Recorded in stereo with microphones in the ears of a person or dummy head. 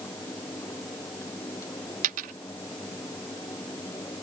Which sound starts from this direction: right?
A dropped coin, at 2.0 s.